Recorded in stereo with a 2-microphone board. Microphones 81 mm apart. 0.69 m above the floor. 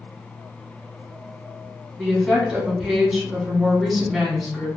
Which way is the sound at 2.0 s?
10° right (ahead or behind).